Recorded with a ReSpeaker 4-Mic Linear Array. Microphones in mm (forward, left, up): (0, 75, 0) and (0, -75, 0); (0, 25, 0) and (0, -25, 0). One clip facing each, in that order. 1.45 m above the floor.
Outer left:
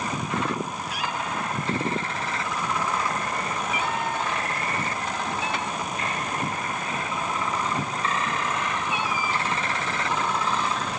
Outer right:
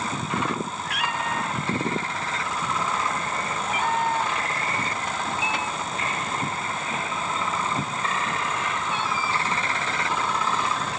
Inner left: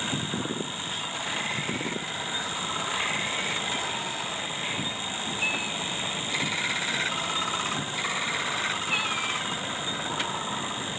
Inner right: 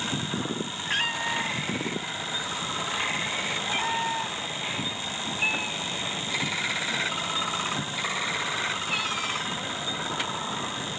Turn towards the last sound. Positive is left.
turn(degrees=15)  # may be behind; listen again after turning